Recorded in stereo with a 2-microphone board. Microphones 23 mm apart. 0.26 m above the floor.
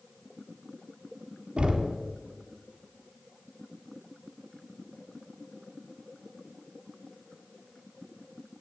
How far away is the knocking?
About 1.5 m.